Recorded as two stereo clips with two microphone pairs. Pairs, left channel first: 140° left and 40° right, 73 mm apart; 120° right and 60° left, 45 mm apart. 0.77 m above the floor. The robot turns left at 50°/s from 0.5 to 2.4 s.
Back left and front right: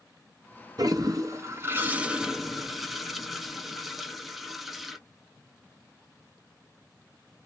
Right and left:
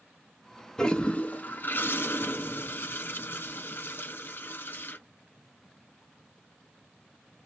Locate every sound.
0.8 s a toilet flushing: 50° right, 0.5 m; by 5.0 s 130° right, 0.5 m